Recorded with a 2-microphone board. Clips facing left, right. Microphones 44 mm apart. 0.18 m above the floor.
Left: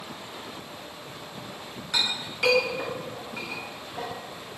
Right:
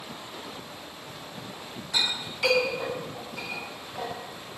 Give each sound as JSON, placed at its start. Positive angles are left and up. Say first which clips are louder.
{"t": 1.9, "sound": "a clink", "louder": "even", "side_deg": 60, "distance_m": 1.7}